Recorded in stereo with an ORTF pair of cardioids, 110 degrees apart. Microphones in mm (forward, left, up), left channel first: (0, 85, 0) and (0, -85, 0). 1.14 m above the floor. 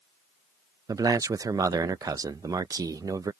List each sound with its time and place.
0.9 s a man speaking: 20° right